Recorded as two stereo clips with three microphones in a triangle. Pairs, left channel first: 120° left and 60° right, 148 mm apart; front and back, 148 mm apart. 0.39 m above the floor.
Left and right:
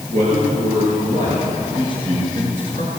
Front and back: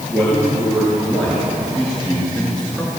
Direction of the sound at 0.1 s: 90° right.